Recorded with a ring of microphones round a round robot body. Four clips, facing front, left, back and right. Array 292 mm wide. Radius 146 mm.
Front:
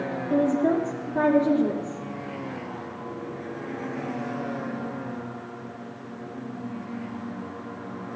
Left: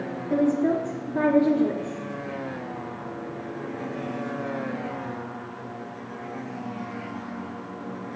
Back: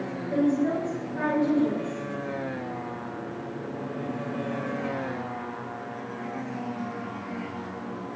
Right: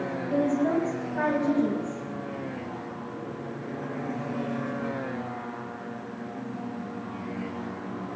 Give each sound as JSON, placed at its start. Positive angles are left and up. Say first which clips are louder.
{"t": 0.3, "sound": "a woman speaking", "louder": "left 3 dB, front 2 dB", "azimuth_deg": 45, "distance_m": 8.5}